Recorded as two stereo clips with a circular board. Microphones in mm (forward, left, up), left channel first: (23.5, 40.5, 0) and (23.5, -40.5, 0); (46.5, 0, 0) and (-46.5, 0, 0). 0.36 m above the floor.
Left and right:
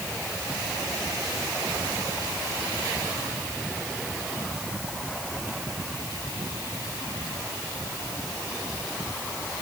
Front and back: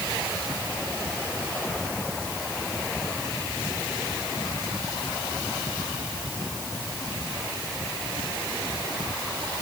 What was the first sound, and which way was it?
Only background noise.